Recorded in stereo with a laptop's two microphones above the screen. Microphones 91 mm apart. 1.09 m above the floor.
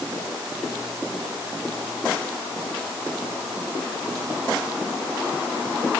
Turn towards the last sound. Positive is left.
No sound to turn to.